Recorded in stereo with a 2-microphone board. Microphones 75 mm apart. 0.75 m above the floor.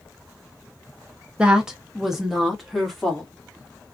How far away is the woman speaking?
About 0.6 m.